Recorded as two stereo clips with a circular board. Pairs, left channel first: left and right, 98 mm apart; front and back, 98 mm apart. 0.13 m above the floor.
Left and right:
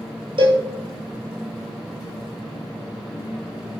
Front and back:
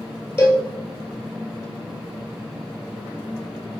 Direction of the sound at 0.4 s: 65° right.